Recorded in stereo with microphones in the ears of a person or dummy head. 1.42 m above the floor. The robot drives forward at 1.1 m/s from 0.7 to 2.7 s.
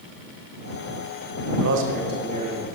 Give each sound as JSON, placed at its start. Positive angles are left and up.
{"t": 1.6, "sound": "a man speaking", "side_deg": -80, "distance_m": 1.1}